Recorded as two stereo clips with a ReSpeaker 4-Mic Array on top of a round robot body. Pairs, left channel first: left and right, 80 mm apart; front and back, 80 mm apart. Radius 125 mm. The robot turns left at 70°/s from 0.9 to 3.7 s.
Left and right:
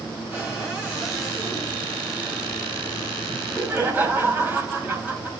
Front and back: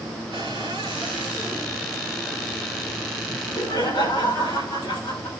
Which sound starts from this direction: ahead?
Laughter, at 3.3 s.